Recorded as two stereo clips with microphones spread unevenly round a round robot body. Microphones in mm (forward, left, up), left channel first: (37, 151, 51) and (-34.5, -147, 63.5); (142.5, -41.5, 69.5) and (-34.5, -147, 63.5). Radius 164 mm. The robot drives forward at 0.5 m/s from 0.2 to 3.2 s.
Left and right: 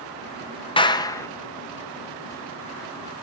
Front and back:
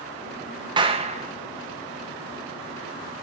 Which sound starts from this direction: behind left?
A clap, at 0.8 s.